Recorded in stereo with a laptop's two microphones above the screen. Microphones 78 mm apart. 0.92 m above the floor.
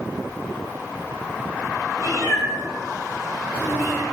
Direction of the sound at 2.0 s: 50° left (ahead or behind).